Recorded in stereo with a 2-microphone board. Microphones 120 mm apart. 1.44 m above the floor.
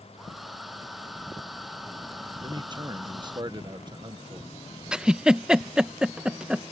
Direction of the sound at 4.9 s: 5° right (ahead or behind).